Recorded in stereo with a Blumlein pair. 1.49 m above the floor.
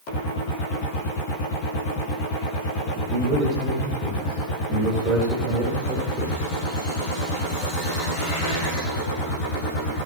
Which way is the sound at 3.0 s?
30° right.